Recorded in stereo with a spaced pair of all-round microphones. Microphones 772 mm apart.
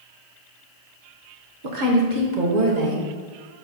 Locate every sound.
1.6 s a woman speaking: 75° right (ahead or behind), 1.6 m; by 3.1 s 50° right (ahead or behind), 1.6 m